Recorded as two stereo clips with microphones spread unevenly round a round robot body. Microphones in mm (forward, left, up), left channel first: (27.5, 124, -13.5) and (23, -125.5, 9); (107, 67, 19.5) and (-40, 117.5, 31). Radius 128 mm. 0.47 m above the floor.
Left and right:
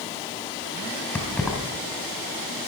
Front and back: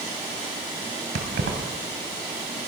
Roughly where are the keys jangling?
Behind.